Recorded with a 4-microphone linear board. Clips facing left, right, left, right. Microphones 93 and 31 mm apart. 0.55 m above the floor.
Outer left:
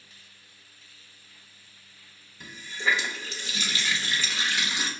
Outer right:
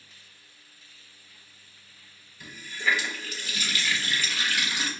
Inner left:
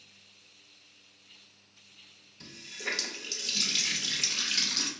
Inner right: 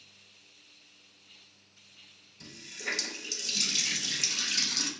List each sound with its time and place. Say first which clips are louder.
2.4 s a running tap: even, inner left 1 dB; 25° left (ahead or behind), 0.7 m